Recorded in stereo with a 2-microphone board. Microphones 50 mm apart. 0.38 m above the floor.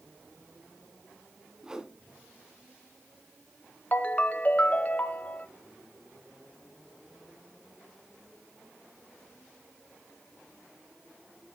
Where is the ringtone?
30° left (ahead or behind), 0.6 m.